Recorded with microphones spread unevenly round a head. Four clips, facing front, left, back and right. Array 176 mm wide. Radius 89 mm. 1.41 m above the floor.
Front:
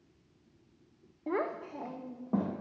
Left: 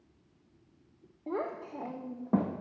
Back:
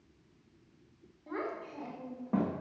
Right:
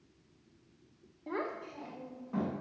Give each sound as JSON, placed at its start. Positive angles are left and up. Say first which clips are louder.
{"t": 1.3, "sound": "a child speaking", "louder": "left 3 dB, front 5 dB", "azimuth_deg": 20, "distance_m": 0.7}